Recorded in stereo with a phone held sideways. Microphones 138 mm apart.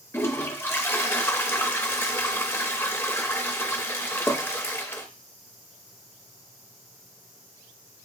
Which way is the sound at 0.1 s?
20° left (ahead or behind).